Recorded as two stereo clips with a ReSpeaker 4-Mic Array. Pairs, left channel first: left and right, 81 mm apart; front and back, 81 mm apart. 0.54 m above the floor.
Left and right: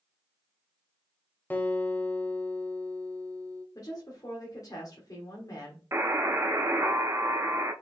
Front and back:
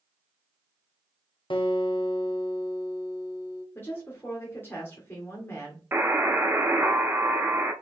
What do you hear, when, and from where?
1.5 s a guitar: 20° left, 0.9 m
3.8 s a woman speaking: 55° left, 1.4 m
5.9 s a buzzer: 130° right, 0.8 m